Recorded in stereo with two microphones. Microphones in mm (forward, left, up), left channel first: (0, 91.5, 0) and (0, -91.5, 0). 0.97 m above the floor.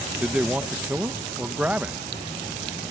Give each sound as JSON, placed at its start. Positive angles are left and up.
{"t": 0.2, "sound": "a man speaking", "side_deg": -5}